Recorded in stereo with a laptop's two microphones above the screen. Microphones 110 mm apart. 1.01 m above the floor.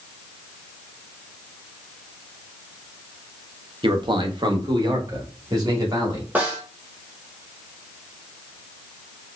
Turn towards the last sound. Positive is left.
turn(degrees=-15)  # may be behind; listen again after turning